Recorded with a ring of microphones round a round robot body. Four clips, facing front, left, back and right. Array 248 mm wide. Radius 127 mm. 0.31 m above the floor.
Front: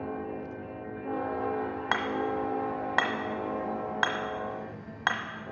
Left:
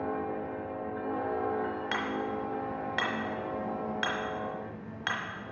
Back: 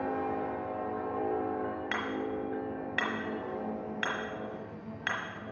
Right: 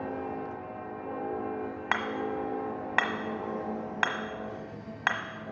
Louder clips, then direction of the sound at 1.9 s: Right 1 dB, front 9 dB; 40° right.